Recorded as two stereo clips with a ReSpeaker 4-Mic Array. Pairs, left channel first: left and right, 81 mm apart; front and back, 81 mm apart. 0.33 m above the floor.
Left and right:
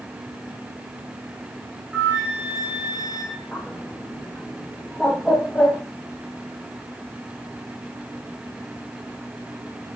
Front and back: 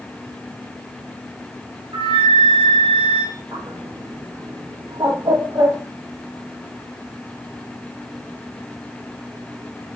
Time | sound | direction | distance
1.9 | a flute | 170° right | 2 m
3.5 | a bird | 165° left | 1.0 m